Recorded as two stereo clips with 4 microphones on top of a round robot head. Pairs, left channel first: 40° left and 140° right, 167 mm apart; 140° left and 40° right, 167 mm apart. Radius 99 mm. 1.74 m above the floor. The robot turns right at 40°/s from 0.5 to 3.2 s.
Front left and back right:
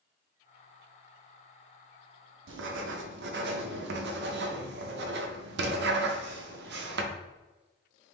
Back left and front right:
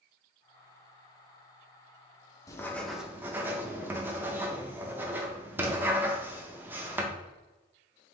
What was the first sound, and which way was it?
Writing, 145° right.